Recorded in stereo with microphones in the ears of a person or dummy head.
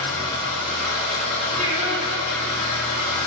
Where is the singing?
40° right (ahead or behind), 0.5 m.